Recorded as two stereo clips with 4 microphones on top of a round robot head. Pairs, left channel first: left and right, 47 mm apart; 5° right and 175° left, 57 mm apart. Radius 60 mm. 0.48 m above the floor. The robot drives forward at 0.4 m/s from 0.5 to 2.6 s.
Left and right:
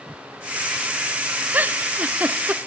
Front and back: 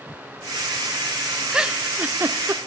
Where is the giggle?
110° right, 0.7 m; by 2.6 s 145° right, 0.9 m.